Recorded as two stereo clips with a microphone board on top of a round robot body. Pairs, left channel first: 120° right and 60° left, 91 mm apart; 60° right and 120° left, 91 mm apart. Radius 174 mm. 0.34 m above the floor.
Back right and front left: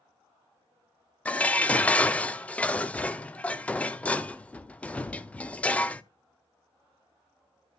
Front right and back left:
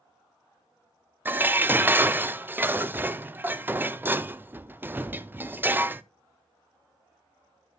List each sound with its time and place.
1.2 s dishes clattering: 175° left, 0.7 m